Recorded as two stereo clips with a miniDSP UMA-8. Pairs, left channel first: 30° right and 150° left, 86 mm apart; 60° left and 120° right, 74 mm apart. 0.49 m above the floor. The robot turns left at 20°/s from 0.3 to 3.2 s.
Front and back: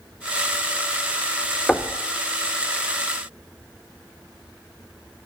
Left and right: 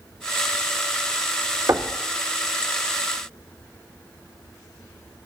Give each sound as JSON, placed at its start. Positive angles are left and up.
{"t": 1.7, "sound": "knocking", "azimuth_deg": -100, "distance_m": 0.5}